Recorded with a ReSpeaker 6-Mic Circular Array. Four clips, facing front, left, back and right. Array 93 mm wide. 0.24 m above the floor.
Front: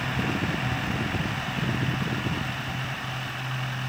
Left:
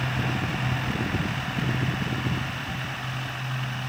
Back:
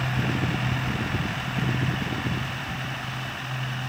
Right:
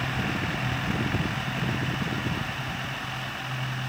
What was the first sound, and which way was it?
Only background noise.